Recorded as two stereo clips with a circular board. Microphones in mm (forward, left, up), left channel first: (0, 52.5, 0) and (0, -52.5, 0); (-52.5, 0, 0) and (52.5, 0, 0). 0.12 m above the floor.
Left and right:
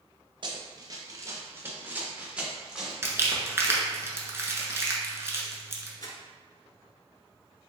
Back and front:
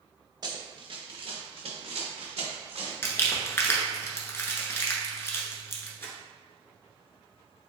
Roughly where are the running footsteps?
Ahead right.